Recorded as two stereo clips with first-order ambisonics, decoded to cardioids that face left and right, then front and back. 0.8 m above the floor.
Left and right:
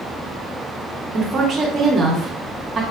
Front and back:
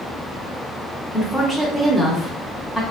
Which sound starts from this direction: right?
A woman speaking, at 1.1 s.